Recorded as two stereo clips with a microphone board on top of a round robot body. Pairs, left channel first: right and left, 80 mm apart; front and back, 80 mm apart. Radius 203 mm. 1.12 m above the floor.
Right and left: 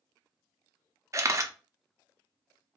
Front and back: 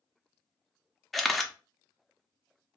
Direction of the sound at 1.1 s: 90° left.